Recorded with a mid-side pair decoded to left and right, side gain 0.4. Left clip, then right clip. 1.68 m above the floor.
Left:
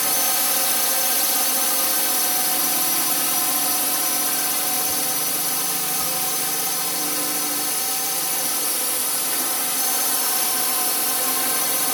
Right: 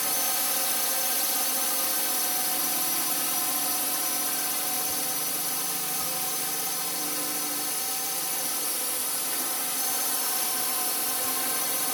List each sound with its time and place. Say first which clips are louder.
0.0 s a drone: left 6 dB; 50° left